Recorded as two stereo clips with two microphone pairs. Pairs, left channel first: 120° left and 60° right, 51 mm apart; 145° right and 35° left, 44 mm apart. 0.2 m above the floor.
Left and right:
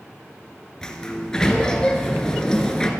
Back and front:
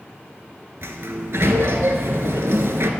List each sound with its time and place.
0.8 s a sliding door: 45° left, 0.6 m